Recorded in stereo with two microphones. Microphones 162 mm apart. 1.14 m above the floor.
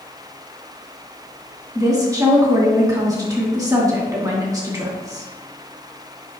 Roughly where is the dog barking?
I don't hear a dog barking.